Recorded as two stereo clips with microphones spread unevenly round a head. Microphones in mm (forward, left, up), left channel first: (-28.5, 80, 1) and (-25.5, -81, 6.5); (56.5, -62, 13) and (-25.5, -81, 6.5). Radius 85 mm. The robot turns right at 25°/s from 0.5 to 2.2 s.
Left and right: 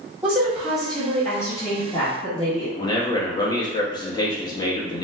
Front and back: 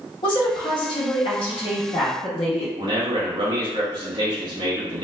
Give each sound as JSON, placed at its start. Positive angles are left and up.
{"t": 0.2, "sound": "a woman speaking", "azimuth_deg": -5, "distance_m": 1.3}
{"t": 2.8, "sound": "a man speaking", "azimuth_deg": 155, "distance_m": 1.0}